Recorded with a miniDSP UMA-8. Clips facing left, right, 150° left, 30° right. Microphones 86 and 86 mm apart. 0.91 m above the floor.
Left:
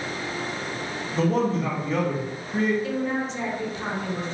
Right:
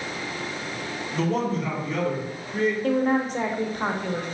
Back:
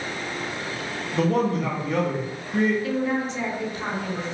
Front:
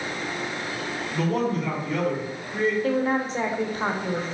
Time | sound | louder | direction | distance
1.1 | a man speaking | left 2 dB, back 3 dB | 140° left | 1.1 m
2.8 | a woman speaking | right 5 dB, front 1 dB | 65° right | 0.5 m